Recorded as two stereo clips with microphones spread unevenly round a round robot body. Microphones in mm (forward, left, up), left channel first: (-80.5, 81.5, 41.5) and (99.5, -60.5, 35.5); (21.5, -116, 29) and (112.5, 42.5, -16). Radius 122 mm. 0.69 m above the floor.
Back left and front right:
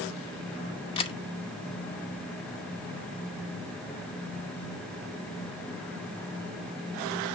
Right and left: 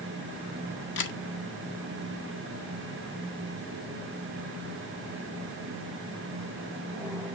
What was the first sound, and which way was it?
A camera shutter, 155° right.